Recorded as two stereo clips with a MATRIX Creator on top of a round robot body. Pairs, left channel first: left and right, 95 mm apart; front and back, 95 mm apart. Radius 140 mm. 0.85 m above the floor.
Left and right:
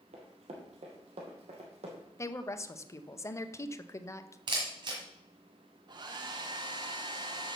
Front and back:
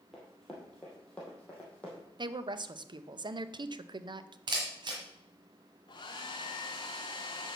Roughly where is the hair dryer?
Ahead right.